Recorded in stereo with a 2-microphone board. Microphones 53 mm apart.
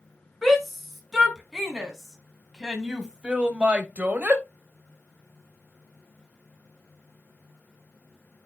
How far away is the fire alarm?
No fire alarm in this recording.